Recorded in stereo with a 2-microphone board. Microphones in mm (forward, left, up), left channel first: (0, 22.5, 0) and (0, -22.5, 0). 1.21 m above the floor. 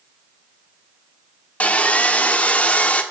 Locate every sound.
1.6 s sawing: 30° left (ahead or behind), 1.2 m